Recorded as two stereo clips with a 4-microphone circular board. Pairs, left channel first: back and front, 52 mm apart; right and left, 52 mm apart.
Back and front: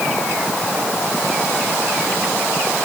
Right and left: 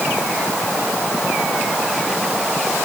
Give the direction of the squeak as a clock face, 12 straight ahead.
No squeak in this recording.